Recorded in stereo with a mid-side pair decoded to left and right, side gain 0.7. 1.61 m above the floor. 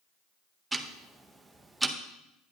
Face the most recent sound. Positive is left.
turn(degrees=-10)